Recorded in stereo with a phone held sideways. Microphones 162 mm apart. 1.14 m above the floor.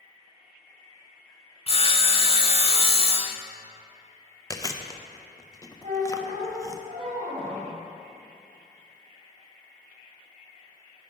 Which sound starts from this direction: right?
A squeak, at 5.8 s.